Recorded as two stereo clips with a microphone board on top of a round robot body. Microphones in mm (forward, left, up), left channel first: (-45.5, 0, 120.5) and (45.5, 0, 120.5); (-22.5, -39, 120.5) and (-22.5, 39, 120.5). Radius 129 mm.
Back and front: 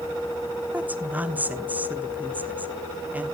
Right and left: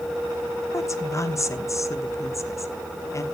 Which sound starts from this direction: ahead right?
A woman speaking, at 0.7 s.